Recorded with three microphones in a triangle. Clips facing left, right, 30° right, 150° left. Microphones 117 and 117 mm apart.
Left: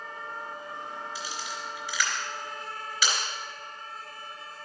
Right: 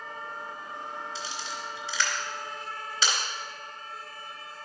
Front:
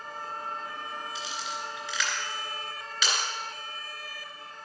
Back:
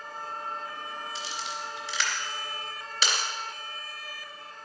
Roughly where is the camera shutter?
Behind right.